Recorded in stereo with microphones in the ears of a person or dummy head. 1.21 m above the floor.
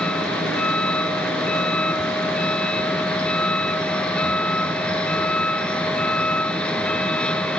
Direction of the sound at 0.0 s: 5° left (ahead or behind).